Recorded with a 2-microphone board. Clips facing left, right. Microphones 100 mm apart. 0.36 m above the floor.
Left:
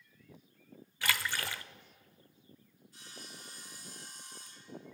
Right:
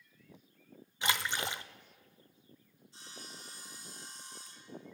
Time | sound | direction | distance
1.0 | a splash | 20° right (ahead or behind) | 0.5 m
2.9 | sawing | 25° right (ahead or behind) | 3.5 m